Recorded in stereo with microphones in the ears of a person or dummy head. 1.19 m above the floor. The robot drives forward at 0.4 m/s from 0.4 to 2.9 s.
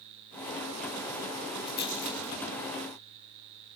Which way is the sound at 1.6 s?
60° left (ahead or behind).